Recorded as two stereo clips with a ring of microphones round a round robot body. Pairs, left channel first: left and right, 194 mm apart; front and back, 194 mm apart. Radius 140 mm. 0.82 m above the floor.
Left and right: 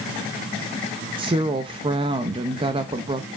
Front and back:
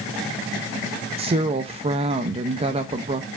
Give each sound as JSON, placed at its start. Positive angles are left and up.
{"t": 1.2, "sound": "a woman speaking", "azimuth_deg": -140, "distance_m": 0.5}